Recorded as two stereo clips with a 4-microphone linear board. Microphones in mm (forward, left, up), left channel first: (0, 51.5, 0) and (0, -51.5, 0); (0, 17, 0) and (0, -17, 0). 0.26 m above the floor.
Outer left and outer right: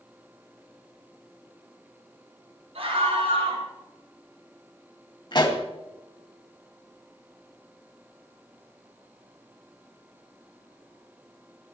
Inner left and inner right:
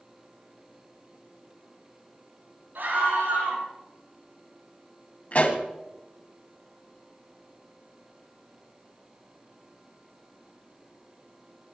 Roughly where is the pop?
Left.